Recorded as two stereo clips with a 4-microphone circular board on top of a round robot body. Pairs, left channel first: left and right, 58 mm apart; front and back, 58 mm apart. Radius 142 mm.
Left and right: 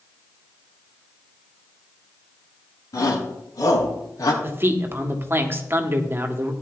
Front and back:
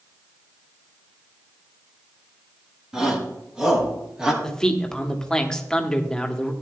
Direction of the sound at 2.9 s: 105° left.